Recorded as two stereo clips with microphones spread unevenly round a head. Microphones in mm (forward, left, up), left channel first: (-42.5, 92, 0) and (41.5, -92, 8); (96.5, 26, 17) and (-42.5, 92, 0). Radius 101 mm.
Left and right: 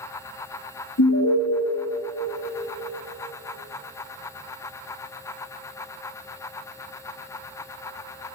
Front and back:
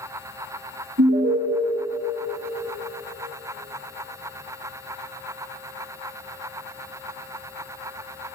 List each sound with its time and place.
1.0 s an alarm: 135° left, 1.1 m